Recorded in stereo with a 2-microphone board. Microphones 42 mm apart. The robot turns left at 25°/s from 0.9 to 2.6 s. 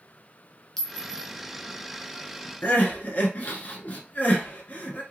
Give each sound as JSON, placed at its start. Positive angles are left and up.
{"t": 0.8, "sound": "a clink", "side_deg": 10, "distance_m": 0.7}
{"t": 2.6, "sound": "crying", "side_deg": 40, "distance_m": 0.9}